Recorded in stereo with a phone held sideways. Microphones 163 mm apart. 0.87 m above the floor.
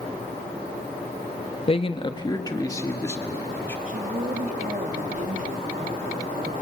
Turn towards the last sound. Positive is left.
turn(degrees=-55)  # may be behind; listen again after turning